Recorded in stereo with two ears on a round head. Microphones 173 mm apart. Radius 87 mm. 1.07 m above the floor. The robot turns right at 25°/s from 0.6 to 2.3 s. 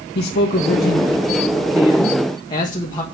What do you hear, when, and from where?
0.1 s a man speaking: 110° left, 1.5 m; by 3.0 s 155° left, 1.5 m